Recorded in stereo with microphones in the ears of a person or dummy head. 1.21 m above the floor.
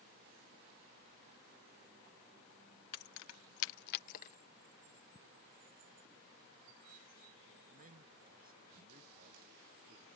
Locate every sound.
2.9 s keys jangling: 55° left (ahead or behind); by 4.4 s 40° left (ahead or behind)
5.2 s ticking: 20° left (ahead or behind)
7.7 s a man speaking: 45° right (ahead or behind)